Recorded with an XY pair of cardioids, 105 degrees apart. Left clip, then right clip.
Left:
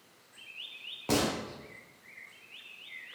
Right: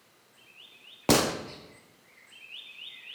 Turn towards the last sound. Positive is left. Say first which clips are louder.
# right 6 dB
turn(degrees=-70)